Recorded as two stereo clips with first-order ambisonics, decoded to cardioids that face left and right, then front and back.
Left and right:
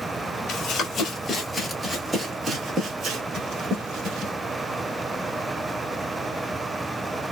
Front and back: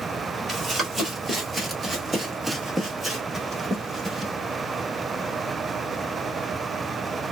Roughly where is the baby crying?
I don't hear a baby crying.